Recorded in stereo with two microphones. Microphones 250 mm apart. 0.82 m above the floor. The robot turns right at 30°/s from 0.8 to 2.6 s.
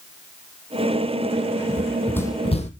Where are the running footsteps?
10° right (ahead or behind), 1.0 m; by 2.7 s 30° left (ahead or behind), 1.2 m.